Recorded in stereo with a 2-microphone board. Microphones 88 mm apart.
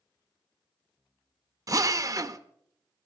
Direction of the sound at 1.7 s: 40° right (ahead or behind).